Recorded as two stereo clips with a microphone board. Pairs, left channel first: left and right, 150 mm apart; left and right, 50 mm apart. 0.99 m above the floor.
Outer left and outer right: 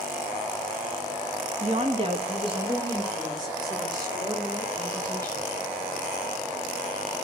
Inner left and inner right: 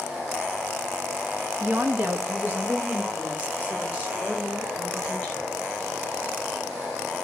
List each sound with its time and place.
1.6 s a woman speaking: 45° right (ahead or behind), 1.3 m; by 5.5 s 20° right (ahead or behind), 6.5 m